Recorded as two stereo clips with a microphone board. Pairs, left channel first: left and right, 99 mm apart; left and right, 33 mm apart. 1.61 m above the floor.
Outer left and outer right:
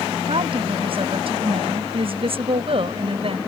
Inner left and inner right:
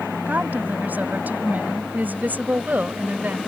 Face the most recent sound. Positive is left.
turn(degrees=-65)  # may be behind; listen again after turning